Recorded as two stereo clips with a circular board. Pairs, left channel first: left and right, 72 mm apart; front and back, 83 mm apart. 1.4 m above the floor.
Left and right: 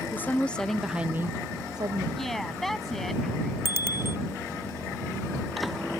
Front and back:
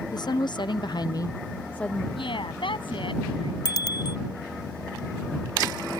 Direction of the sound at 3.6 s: 35° right.